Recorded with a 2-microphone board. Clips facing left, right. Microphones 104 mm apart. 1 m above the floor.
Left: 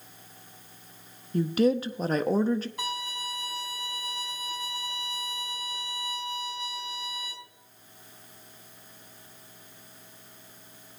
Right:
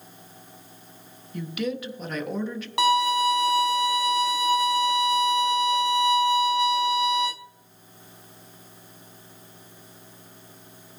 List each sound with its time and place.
1.3 s a woman speaking: 35° left (ahead or behind), 0.8 m
2.8 s a violin: 80° right, 0.9 m